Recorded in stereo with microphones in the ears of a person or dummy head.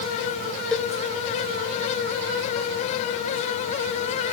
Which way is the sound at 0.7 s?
Centre (ahead or behind).